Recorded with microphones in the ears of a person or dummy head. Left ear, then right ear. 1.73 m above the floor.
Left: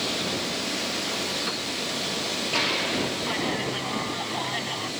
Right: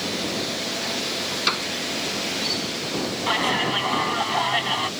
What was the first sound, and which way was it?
A piano, 65° right (ahead or behind).